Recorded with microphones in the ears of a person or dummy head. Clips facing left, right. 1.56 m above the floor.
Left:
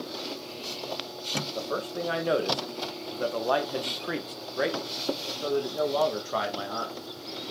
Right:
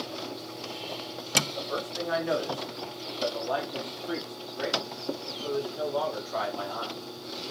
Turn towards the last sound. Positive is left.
turn(degrees=50)  # may be behind; listen again after turning